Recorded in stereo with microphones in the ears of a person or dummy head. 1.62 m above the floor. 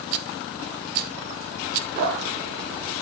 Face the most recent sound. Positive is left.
turn(degrees=-65)  # may be behind; listen again after turning